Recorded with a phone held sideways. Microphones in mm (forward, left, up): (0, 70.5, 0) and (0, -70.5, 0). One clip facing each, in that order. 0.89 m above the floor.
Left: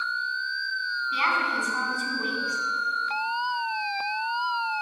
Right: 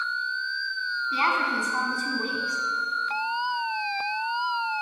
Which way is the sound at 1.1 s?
35° right (ahead or behind).